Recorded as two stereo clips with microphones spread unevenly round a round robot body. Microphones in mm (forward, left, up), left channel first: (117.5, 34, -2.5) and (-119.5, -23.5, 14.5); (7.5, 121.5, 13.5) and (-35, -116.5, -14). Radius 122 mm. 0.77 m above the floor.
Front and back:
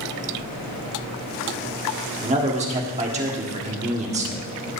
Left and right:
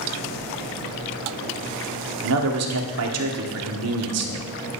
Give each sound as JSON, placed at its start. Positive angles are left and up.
{"t": 2.2, "sound": "a man speaking", "azimuth_deg": -100, "distance_m": 1.9}